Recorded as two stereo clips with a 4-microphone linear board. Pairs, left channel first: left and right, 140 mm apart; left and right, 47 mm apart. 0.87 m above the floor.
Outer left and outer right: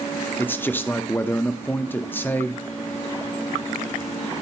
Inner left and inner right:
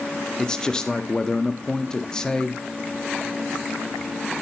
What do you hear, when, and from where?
0.4 s a man speaking: 15° left (ahead or behind), 0.5 m